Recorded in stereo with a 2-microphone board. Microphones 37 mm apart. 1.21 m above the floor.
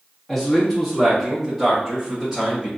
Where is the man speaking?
15° left (ahead or behind), 1.3 m; by 2.7 s 5° right (ahead or behind), 2.5 m.